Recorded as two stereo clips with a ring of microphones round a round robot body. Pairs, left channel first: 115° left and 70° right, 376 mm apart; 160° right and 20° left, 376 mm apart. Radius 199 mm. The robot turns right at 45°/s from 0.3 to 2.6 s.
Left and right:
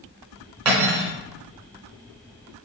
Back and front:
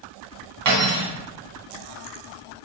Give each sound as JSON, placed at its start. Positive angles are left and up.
{"t": 0.7, "sound": "cutlery clinking", "azimuth_deg": -20, "distance_m": 1.0}